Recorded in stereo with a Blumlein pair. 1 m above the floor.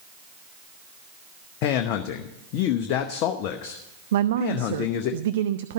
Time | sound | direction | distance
1.6 | a man speaking | 40° left | 0.8 m
4.1 | a woman speaking | 60° right | 0.5 m